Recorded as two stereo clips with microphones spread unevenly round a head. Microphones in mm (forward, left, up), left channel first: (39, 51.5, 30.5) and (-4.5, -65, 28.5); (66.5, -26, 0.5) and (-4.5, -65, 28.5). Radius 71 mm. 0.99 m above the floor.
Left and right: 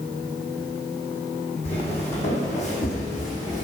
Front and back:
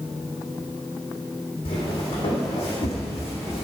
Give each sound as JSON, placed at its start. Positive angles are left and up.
{"t": 1.6, "sound": "footsteps", "azimuth_deg": 30, "distance_m": 3.0}